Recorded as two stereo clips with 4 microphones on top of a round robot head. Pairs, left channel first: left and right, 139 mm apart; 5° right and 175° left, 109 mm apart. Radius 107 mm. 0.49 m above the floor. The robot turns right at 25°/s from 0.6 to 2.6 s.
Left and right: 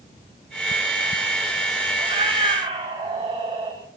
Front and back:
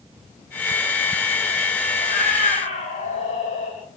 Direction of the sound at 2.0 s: 30° right.